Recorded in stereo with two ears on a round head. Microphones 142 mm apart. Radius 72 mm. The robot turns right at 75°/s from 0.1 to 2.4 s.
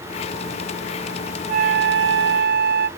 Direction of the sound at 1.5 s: 130° right.